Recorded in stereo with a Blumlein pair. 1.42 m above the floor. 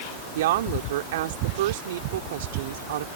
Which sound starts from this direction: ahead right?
A woman speaking, at 0.3 s.